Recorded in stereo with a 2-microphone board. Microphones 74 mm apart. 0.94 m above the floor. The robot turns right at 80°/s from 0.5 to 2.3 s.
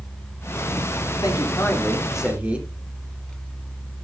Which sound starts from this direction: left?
A man speaking, at 1.2 s.